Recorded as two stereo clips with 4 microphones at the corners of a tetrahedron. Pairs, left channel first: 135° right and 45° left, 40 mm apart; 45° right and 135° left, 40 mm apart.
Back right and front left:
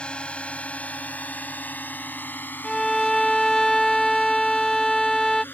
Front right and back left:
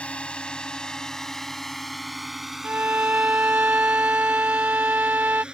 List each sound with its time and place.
0.0 s a drone: 90° right; by 5.5 s 160° right
2.6 s a violin: 150° left